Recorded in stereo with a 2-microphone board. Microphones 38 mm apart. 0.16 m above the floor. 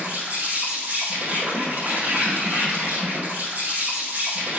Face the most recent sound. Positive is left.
turn(degrees=-45)  # may be behind; listen again after turning